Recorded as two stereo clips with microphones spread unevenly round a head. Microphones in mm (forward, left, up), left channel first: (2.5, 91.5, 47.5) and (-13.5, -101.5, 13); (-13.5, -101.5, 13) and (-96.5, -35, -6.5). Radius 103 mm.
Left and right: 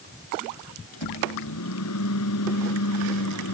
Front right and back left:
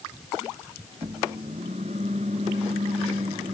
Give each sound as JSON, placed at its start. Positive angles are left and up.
{"t": 0.9, "sound": "a microwave", "azimuth_deg": 80}